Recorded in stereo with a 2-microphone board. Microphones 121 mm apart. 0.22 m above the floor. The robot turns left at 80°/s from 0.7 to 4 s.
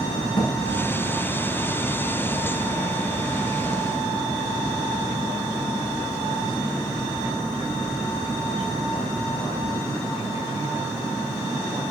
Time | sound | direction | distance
0.4 | a thud | 50° left (ahead or behind) | 9.5 m